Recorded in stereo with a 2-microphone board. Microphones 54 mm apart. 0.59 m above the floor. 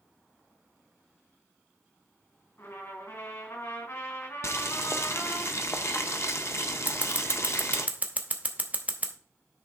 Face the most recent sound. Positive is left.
turn(degrees=-30)  # may be behind; listen again after turning